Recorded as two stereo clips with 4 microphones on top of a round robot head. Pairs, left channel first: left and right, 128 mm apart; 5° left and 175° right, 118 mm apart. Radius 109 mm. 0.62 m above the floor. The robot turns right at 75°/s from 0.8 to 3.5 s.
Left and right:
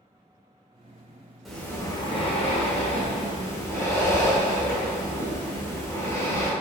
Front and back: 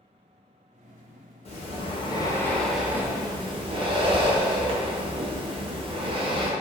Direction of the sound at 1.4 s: Straight ahead.